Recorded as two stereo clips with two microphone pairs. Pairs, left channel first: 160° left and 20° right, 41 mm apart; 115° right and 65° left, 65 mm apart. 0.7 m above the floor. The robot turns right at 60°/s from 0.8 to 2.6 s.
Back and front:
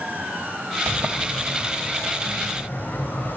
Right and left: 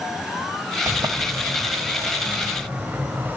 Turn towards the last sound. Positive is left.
turn(degrees=125)